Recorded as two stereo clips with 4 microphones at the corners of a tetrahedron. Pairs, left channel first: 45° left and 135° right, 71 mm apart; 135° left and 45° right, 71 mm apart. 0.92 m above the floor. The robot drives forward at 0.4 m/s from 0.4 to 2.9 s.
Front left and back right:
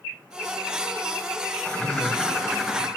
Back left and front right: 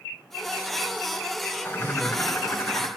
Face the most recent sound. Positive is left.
turn(degrees=140)